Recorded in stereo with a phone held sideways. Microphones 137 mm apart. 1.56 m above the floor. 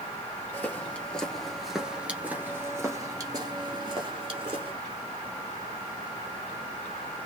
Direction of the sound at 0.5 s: 15° left (ahead or behind).